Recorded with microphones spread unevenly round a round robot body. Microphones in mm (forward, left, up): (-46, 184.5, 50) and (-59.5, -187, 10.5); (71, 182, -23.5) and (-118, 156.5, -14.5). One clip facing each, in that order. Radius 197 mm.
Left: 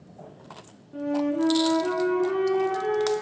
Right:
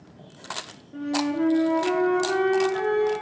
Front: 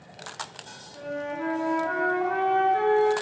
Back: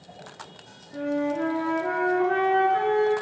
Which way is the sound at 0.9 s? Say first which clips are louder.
Even, back 7 dB; 175° right.